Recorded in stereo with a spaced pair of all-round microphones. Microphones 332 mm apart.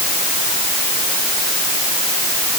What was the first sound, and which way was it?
Only background noise.